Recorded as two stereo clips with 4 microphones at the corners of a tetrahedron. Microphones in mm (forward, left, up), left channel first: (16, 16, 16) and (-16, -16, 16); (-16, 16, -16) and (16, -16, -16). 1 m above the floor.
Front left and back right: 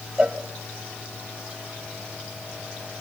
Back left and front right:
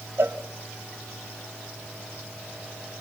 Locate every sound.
0.2 s a cowbell: 75° right, 1.2 m